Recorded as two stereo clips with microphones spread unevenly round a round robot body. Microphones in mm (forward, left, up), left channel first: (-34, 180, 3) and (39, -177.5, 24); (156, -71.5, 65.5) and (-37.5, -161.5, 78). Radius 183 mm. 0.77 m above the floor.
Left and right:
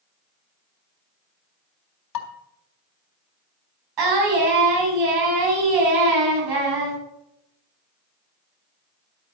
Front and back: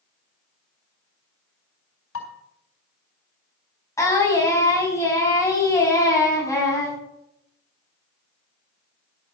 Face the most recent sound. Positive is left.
turn(degrees=-50)